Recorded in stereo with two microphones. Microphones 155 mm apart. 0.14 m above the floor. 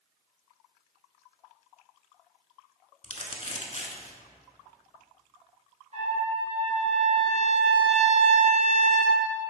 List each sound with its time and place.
3.0 s crumpling: 40° left (ahead or behind), 0.9 m
5.9 s a trumpet: 45° right (ahead or behind), 2 m